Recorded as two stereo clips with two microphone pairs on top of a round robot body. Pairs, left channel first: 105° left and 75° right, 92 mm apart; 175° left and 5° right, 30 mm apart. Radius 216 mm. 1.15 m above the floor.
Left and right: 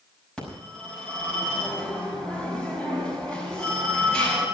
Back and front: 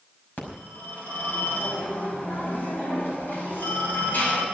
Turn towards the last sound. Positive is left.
turn(degrees=-175)